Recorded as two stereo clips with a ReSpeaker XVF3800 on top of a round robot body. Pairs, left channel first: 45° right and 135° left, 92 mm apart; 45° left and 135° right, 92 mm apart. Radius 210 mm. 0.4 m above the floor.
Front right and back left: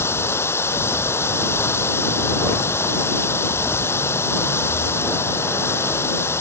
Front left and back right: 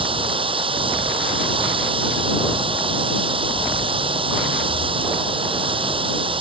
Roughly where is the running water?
Right.